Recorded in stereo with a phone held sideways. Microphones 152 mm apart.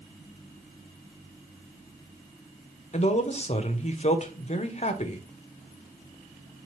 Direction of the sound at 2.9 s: 45° left (ahead or behind).